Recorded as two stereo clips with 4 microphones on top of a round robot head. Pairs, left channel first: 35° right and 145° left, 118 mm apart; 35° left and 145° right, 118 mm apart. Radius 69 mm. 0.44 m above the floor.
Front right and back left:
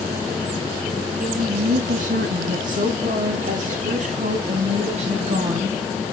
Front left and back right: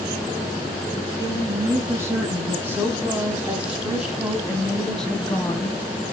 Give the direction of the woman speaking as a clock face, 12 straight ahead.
7 o'clock.